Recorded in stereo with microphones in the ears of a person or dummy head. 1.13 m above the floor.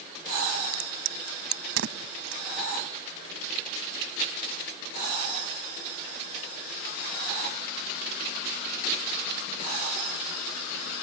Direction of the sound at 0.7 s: 70° right (ahead or behind).